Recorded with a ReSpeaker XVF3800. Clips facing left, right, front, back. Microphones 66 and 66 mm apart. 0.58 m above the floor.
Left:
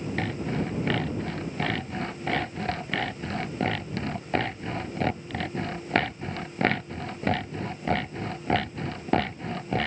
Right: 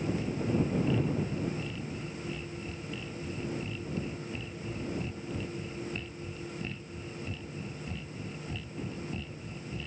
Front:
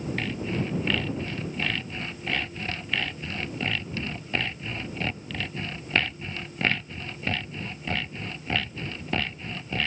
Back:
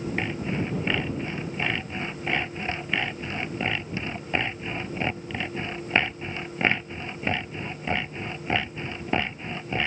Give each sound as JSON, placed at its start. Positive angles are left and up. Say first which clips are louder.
{"t": 0.2, "sound": "sawing", "louder": "left 1 dB, back 1 dB", "azimuth_deg": 110}